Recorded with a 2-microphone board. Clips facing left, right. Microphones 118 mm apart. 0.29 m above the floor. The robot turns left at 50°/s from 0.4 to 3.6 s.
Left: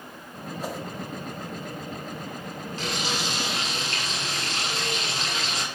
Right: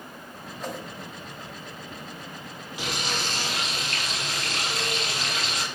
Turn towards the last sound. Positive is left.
turn(degrees=150)